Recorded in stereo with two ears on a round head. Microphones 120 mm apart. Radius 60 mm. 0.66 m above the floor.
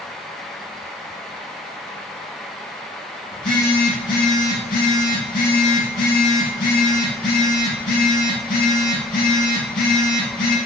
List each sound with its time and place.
3.3 s a phone buzzing: 70° left (ahead or behind), 3 m